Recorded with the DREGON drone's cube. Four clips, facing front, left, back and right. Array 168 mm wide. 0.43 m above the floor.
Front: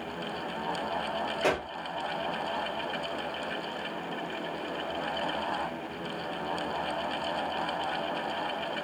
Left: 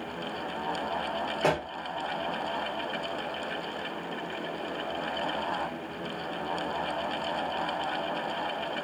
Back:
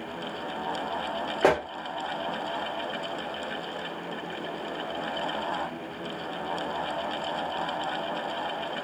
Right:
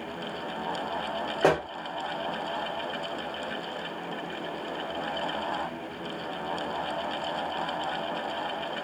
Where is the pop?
145° right, 0.9 m.